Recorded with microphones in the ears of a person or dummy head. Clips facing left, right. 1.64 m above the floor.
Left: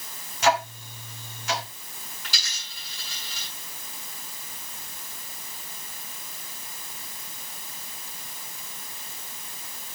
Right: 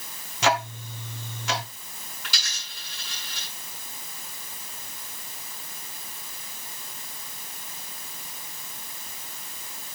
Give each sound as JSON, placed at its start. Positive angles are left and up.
{"t": 0.4, "sound": "ticking", "side_deg": -65, "distance_m": 1.5}
{"t": 2.2, "sound": "a dropped coin", "side_deg": -50, "distance_m": 7.0}